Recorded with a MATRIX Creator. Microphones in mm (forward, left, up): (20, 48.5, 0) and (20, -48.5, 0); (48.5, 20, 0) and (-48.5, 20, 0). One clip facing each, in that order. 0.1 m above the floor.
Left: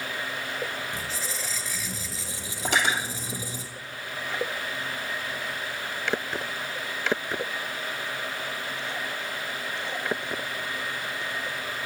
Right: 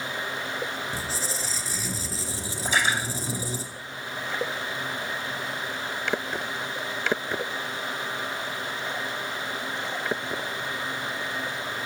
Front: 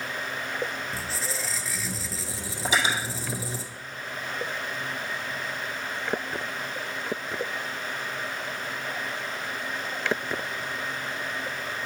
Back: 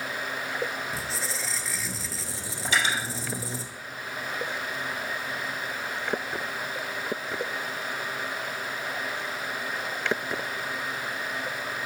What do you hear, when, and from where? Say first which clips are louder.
0.9 s a squeak: right 2 dB, even; 90° right, 0.7 m
2.6 s cutlery clinking: even, front 1 dB; 70° left, 2.5 m